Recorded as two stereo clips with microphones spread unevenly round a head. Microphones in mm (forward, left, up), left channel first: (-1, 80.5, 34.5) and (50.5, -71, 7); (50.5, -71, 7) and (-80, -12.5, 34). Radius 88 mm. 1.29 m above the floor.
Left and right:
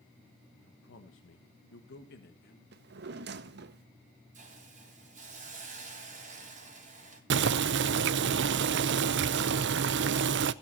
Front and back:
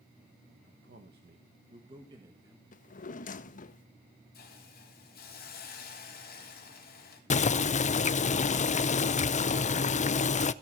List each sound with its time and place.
0.6 s a man speaking: 135° left, 1.2 m; by 2.6 s 75° left, 1.8 m
2.7 s a drawer: 55° right, 0.8 m
4.3 s a hiss: 30° right, 3.5 m
7.3 s boiling: 65° right, 0.6 m